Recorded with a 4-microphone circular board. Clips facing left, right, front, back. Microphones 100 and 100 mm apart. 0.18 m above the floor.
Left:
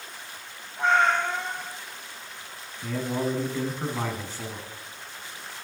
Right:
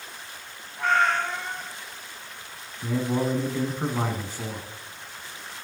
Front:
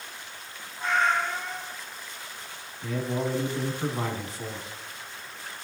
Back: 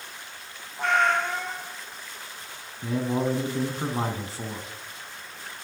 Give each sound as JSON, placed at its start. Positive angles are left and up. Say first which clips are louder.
{"t": 0.8, "sound": "a cat meowing", "louder": "left 1 dB, back 2 dB", "azimuth_deg": 160, "distance_m": 1.5}
{"t": 2.8, "sound": "a man speaking", "louder": "right 3 dB, back 3 dB", "azimuth_deg": -155, "distance_m": 1.7}